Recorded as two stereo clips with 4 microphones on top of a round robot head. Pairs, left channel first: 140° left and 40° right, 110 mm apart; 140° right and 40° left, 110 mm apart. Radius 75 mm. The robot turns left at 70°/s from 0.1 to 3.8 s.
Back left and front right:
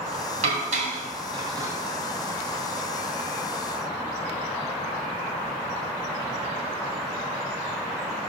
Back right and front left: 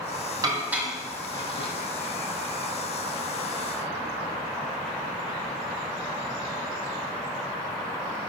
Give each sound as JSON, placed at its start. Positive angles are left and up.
{"t": 0.4, "sound": "dishes clattering", "azimuth_deg": -20, "distance_m": 2.5}